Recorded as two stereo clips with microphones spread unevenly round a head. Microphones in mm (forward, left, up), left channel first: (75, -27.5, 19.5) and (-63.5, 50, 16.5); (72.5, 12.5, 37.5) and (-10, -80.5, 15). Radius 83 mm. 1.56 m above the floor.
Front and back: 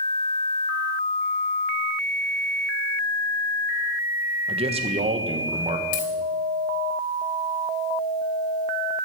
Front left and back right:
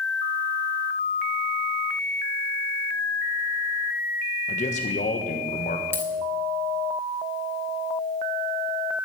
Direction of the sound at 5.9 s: 20° right.